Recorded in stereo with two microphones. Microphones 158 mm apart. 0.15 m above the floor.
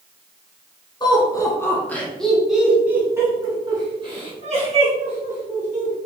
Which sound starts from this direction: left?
Laughter, at 1.0 s.